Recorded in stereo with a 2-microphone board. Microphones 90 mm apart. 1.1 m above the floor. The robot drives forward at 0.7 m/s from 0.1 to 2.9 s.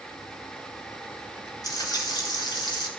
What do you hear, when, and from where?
1.6 s frying: 45° left (ahead or behind), 3.5 m; by 2.9 s 55° left (ahead or behind), 3 m